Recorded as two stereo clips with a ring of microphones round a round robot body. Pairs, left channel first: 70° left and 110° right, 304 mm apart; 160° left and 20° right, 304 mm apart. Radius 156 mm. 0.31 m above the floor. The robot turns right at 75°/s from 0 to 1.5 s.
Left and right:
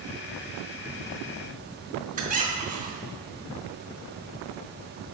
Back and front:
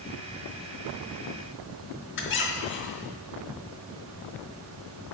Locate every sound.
2.2 s a squeak: 170° right, 0.7 m